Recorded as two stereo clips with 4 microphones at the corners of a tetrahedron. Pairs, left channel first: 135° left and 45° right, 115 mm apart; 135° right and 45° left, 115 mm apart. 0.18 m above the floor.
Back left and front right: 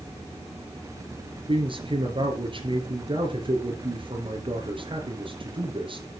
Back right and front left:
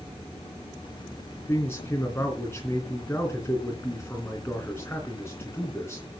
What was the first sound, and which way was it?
A man speaking, 70° right.